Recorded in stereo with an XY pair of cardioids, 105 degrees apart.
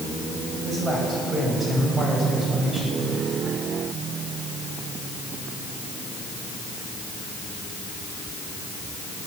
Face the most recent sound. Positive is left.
turn(degrees=-25)